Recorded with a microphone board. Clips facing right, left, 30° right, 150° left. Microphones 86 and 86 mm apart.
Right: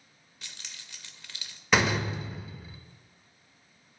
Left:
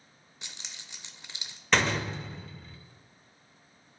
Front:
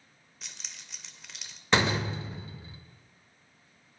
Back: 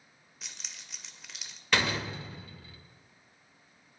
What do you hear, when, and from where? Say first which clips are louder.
0.4 s keys jangling: even, even; 65° left, 0.5 m
1.7 s a door slam: right 1 dB, front 4 dB; 20° right, 0.6 m